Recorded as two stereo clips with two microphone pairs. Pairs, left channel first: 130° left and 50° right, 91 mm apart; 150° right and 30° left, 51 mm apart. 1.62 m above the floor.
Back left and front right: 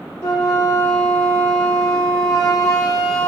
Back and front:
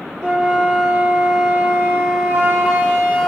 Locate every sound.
0.2 s a flute: 85° left, 3 m